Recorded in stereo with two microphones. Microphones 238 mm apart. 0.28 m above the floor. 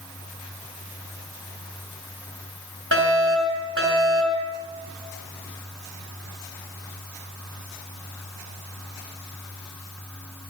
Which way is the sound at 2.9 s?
60° right (ahead or behind).